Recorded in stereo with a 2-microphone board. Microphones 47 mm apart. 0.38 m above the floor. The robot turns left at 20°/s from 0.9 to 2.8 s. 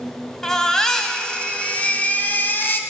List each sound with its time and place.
0.4 s a baby crying: 170° left, 0.8 m; by 2.8 s 130° left, 0.8 m